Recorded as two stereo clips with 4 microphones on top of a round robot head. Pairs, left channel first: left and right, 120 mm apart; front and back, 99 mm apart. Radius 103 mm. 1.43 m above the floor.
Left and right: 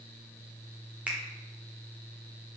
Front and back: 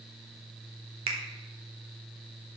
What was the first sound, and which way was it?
A finger snap, 170° right.